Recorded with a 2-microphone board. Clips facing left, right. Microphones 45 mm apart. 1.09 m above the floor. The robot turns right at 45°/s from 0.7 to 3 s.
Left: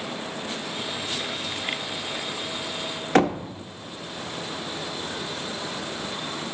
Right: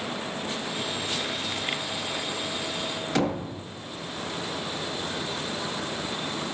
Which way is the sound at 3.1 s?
45° left (ahead or behind).